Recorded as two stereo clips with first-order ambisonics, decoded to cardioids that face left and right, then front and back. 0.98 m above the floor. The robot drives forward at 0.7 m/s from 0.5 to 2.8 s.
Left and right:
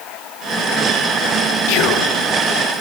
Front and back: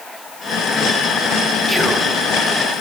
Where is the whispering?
85° left, 0.5 m; by 2.1 s 115° left, 0.6 m.